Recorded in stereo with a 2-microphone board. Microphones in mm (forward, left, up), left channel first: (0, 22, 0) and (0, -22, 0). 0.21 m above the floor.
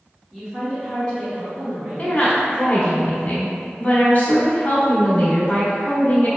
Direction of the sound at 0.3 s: Centre (ahead or behind).